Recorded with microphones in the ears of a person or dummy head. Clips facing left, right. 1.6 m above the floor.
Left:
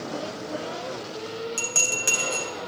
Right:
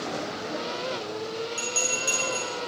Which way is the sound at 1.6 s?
35° left (ahead or behind).